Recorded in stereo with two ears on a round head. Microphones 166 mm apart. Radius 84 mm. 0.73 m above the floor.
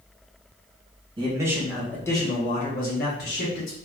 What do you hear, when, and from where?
1.2 s a man speaking: 25° right (ahead or behind), 0.8 m; by 3.8 s 65° left (ahead or behind), 1.2 m